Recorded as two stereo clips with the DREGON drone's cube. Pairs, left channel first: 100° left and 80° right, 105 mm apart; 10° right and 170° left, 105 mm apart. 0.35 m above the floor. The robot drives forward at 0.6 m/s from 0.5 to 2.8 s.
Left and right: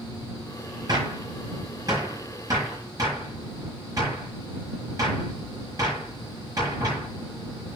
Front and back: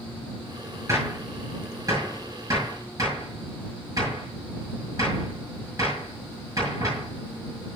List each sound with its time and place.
0.9 s a gunshot: 130° right, 7.5 m; by 7.1 s 135° right, 8 m